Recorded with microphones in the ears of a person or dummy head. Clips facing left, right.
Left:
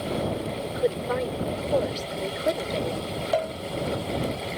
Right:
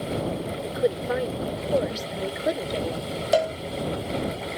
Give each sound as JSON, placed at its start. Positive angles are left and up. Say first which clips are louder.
{"t": 0.6, "sound": "a woman speaking", "louder": "right 2 dB", "side_deg": -15}
{"t": 3.3, "sound": "a cowbell", "louder": "right 5 dB", "side_deg": -35}